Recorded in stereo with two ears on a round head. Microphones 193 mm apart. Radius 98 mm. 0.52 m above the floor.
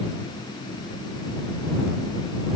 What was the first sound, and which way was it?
Only background noise.